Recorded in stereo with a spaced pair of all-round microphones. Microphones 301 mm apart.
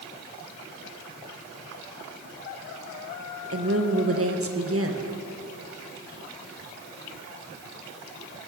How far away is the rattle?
I don't hear a rattle.